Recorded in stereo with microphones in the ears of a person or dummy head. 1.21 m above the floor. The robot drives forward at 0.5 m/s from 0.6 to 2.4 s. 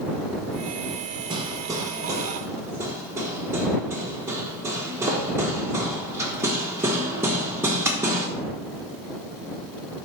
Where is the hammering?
20° right (ahead or behind), 0.5 m; by 8.3 s 10° right (ahead or behind), 1.0 m.